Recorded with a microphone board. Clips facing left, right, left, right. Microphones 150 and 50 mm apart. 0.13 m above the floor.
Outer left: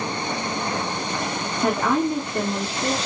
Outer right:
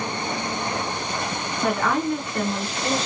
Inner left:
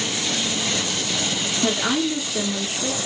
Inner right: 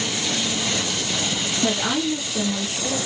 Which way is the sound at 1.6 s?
20° left (ahead or behind).